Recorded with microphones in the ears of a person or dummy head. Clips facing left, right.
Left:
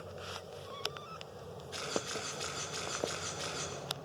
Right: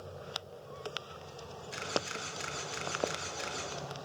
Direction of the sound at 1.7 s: 35° right (ahead or behind).